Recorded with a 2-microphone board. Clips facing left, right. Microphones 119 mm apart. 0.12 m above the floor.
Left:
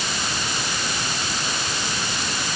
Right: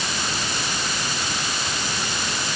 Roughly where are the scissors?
No scissors in this recording.